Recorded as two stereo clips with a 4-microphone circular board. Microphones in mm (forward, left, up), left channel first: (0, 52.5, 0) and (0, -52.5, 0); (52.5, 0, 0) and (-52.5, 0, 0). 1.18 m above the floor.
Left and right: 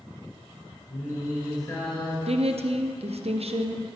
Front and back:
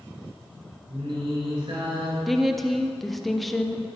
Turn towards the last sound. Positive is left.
turn(degrees=-90)